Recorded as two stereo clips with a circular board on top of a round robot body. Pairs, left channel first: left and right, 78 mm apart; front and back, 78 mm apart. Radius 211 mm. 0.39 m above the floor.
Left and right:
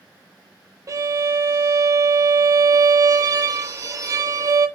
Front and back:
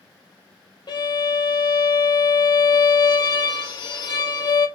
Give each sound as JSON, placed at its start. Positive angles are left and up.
{"t": 0.9, "sound": "a violin", "azimuth_deg": -35, "distance_m": 0.5}